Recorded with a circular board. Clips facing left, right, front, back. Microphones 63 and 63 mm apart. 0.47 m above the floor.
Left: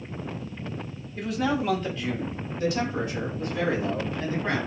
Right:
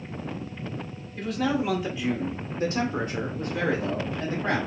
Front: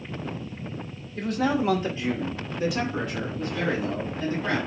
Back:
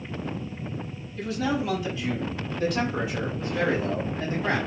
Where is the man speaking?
10° left, 1.4 m; by 4.6 s 130° right, 2 m.